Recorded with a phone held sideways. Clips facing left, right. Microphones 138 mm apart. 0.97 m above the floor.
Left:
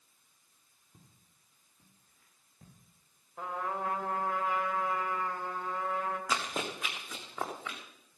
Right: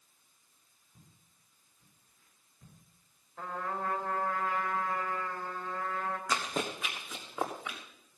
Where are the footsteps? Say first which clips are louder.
Even; 65° left (ahead or behind), 7 m; by 2.8 s 70° left (ahead or behind), 7 m.